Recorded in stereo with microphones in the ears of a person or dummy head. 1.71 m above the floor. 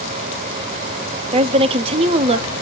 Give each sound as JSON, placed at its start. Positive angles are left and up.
{"t": 1.3, "sound": "a woman speaking", "side_deg": -30, "distance_m": 0.6}